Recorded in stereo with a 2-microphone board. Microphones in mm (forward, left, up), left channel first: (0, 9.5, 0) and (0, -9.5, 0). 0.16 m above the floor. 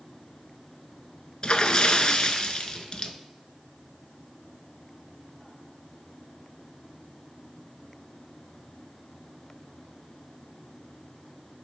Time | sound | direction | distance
1.4 | a splash | 50° left (ahead or behind) | 0.5 m